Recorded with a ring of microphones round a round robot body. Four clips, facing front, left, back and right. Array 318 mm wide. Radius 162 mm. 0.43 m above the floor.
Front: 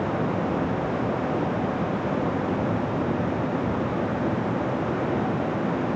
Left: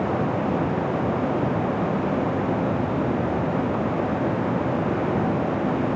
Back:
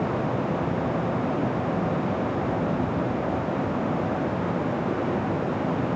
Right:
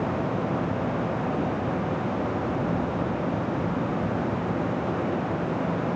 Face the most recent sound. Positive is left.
No sound to turn to.